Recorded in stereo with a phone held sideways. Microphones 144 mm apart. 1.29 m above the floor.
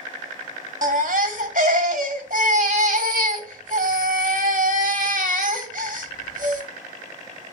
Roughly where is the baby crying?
Right.